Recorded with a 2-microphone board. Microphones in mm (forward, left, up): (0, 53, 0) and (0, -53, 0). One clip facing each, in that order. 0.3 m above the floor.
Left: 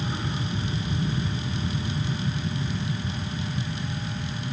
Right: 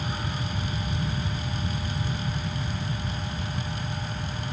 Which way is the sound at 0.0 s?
30° left (ahead or behind).